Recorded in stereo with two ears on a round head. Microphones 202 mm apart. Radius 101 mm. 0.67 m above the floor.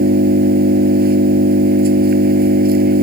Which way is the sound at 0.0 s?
40° right (ahead or behind).